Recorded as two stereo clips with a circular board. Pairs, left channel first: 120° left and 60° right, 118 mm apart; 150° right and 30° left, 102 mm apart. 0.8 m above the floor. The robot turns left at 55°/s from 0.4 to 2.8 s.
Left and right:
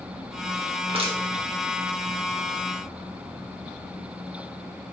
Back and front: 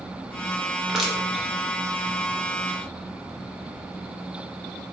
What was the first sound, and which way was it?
Crushing, 50° right.